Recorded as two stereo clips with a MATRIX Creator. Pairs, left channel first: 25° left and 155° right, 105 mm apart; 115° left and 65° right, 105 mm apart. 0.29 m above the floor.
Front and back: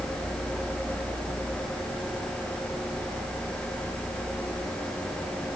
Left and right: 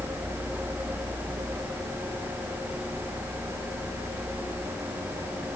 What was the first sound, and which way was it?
Only background noise.